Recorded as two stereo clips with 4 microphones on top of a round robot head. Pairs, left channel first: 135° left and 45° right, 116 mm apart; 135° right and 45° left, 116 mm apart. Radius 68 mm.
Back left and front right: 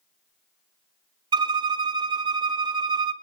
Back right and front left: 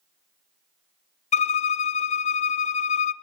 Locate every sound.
1.3 s a violin: 105° right, 0.6 m